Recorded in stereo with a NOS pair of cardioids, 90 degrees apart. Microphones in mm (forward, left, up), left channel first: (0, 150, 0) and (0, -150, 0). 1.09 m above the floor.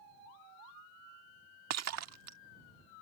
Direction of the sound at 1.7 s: 60° right.